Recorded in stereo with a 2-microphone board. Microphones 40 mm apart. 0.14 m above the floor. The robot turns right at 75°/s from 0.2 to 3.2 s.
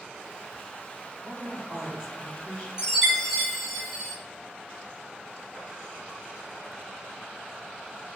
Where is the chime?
25° right, 1.7 m; by 4.2 s 5° left, 1.7 m.